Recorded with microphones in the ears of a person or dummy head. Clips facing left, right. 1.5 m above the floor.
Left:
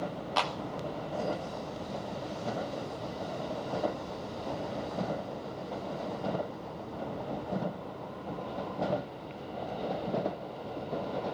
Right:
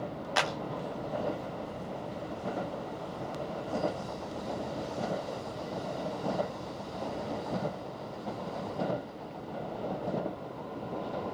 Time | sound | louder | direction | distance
0.4 | a clap | right 1 dB | 20° right (ahead or behind) | 1.1 m